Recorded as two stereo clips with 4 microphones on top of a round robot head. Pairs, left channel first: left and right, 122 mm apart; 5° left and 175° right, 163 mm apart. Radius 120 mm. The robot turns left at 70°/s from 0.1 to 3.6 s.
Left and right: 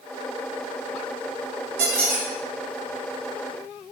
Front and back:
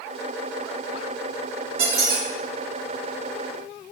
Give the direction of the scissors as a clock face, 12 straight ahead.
No scissors in this recording.